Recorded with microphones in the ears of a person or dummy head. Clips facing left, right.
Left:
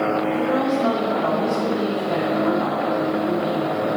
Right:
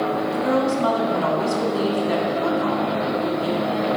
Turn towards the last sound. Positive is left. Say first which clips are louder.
# even
turn(degrees=-70)  # may be behind; listen again after turning